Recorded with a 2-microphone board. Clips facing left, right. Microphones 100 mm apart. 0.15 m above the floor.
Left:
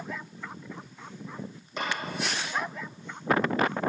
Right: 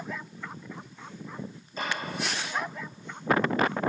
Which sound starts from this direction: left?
A clap, at 1.8 s.